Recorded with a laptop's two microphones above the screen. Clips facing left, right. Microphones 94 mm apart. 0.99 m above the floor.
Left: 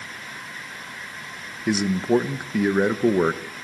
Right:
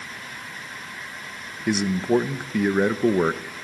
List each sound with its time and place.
1.7 s a man speaking: 5° left (ahead or behind), 0.6 m